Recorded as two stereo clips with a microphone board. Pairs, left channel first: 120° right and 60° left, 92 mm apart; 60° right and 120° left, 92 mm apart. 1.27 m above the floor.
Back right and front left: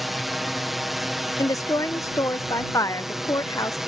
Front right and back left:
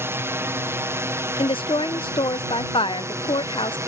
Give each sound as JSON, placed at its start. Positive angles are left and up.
{"t": 0.0, "sound": "a drone", "azimuth_deg": 150}
{"t": 1.4, "sound": "a woman speaking", "azimuth_deg": -70}